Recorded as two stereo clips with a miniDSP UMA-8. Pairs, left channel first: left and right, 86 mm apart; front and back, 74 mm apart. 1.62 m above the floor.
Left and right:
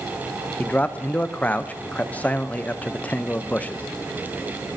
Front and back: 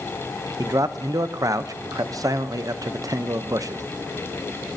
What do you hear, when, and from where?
0.6 s a man speaking: 160° left, 0.6 m